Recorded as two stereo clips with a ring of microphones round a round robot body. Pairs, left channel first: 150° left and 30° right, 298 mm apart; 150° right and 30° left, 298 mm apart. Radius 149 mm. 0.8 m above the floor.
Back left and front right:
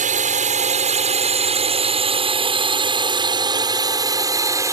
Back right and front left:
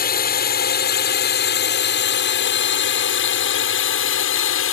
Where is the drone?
95° right; by 4.7 s 110° right.